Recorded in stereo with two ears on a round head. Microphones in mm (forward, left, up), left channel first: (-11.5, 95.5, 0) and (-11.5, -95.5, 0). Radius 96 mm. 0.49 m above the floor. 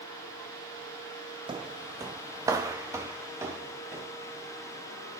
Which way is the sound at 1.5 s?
20° right (ahead or behind).